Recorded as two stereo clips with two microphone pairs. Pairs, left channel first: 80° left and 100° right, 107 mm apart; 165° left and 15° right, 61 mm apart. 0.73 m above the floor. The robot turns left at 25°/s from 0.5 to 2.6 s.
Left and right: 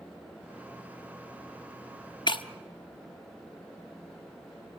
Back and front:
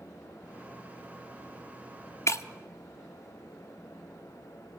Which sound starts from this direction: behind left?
Breaking glass, at 2.3 s.